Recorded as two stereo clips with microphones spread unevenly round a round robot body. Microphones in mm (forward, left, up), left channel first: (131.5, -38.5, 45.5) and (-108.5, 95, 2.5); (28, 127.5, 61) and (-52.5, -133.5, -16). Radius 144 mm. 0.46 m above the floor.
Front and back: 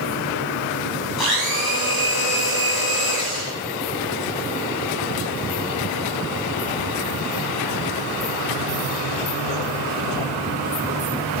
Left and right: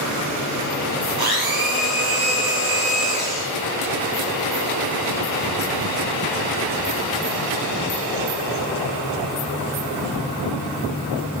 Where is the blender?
25° right, 2.5 m.